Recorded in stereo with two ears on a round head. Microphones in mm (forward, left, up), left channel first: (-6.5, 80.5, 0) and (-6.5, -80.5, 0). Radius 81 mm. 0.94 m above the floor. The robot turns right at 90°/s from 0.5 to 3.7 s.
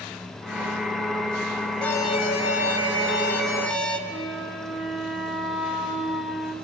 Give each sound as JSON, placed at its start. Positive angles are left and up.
{"t": 1.8, "sound": "an alarm", "azimuth_deg": 5, "distance_m": 2.0}
{"t": 4.1, "sound": "a flute", "side_deg": -5, "distance_m": 1.0}